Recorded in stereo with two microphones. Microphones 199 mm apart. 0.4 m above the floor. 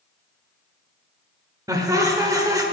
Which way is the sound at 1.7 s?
15° right (ahead or behind).